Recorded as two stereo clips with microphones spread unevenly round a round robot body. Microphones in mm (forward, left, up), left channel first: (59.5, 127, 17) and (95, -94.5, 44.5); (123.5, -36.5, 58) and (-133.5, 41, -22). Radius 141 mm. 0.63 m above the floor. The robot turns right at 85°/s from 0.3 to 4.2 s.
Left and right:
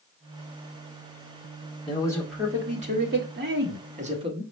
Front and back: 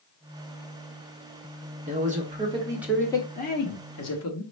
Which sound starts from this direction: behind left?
A man speaking, at 1.9 s.